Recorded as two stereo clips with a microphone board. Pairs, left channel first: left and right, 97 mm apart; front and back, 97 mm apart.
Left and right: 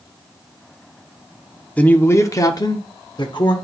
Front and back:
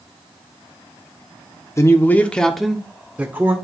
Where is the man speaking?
25° left, 0.9 m; by 3.5 s 115° left, 1.3 m.